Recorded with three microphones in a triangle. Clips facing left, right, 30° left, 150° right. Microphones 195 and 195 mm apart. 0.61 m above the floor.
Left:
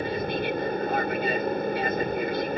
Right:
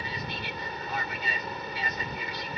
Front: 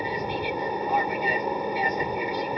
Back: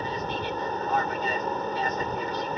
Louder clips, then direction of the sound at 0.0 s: Left 11 dB, front 2 dB; 105° left.